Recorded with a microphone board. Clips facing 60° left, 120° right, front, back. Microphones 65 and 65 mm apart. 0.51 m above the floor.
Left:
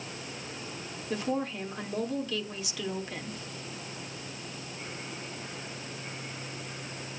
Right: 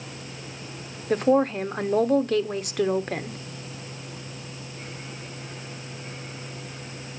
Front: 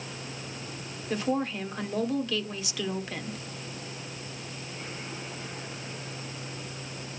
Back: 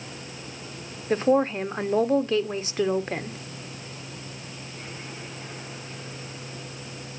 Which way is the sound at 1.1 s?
135° right.